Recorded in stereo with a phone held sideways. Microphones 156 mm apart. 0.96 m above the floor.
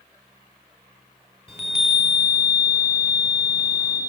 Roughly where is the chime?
Centre.